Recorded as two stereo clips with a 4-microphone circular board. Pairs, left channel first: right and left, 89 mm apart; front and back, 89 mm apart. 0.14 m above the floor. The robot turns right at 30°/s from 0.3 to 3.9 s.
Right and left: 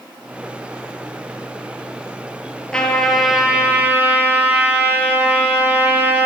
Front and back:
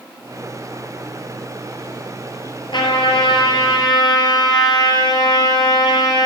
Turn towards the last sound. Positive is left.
turn(degrees=25)